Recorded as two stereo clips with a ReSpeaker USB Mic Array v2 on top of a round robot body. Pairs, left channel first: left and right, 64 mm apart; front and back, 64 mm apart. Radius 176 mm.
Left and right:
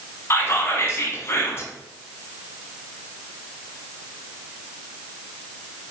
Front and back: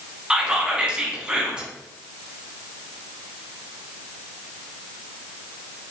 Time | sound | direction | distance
0.3 | whispering | 110° left | 1.1 m